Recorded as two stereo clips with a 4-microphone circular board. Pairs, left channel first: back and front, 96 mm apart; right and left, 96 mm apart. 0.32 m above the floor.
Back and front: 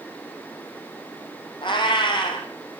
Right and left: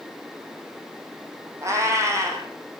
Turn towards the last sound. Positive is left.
turn(degrees=145)